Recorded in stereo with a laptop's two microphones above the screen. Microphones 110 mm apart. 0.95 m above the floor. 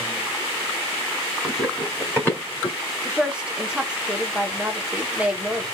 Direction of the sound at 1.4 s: 5° left (ahead or behind).